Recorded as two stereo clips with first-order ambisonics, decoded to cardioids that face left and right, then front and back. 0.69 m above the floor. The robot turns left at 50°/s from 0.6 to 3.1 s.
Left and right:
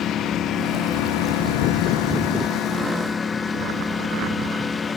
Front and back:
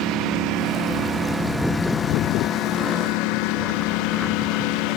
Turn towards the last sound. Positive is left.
turn(degrees=15)